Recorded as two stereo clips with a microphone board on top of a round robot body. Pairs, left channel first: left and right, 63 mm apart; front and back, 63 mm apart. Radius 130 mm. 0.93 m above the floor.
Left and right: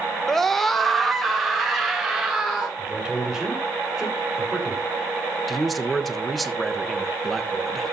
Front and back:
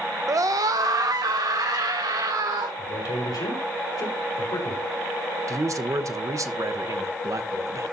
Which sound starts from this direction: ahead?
A man speaking, at 2.8 s.